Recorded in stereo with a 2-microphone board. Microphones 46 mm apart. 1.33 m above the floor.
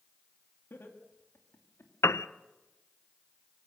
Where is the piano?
70° left (ahead or behind), 0.6 m.